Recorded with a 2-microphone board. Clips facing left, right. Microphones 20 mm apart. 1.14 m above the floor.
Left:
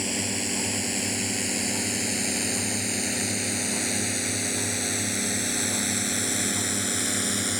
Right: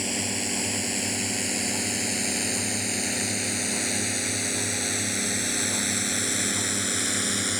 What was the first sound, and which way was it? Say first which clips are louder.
A drone: even; centre (ahead or behind).